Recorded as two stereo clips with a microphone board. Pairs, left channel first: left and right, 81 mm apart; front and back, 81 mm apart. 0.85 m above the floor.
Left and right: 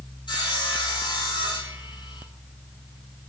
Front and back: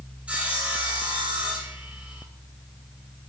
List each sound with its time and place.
0.3 s sawing: 105° left, 8 m